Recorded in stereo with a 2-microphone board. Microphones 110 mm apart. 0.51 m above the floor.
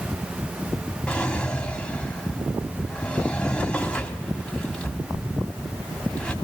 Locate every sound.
1.1 s a drawer: 10° left (ahead or behind), 1.7 m